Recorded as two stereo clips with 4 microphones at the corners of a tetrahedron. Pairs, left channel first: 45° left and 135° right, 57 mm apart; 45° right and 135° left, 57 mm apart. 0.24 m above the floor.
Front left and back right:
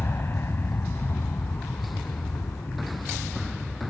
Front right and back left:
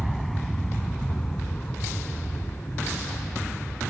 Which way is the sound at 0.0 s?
45° left.